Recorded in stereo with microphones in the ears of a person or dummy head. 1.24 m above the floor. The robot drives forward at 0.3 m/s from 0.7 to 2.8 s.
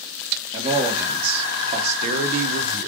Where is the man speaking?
25° right (ahead or behind), 1.1 m; by 2.9 s 50° right (ahead or behind), 0.6 m.